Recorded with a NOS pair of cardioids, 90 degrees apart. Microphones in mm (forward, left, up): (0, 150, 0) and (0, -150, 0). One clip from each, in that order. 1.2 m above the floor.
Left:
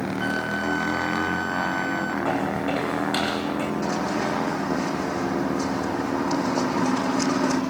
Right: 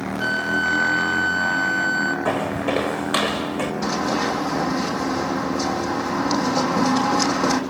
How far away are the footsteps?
About 4.5 m.